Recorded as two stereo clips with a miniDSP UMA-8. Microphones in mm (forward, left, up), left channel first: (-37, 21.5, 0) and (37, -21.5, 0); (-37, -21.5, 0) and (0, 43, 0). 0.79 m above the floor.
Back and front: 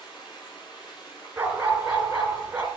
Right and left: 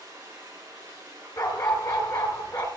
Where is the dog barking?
100° right, 3 m.